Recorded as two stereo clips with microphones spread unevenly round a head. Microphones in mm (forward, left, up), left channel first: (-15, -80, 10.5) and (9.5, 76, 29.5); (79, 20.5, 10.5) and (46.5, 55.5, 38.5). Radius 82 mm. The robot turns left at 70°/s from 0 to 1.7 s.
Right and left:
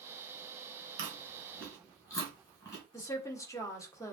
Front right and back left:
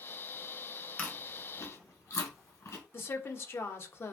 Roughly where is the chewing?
Ahead left.